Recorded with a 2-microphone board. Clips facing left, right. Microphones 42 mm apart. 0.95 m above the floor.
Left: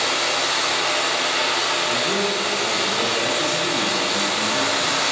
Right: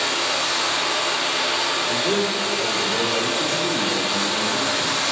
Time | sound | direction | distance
0.0 | running water | 65° left (ahead or behind) | 1.6 m
1.9 | a man speaking | 15° right (ahead or behind) | 2 m